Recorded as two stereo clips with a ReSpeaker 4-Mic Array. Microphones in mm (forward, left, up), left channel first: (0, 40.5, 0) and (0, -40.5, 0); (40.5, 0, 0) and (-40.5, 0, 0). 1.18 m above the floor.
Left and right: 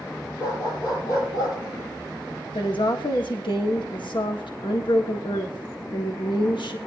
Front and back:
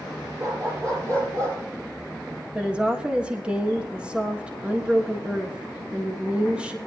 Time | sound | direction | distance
0.4 | a dog barking | 135° left | 8.5 m
2.5 | a woman speaking | 105° left | 1.4 m